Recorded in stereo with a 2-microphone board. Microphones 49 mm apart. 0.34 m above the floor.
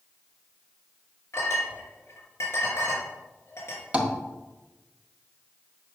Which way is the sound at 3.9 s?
25° right (ahead or behind).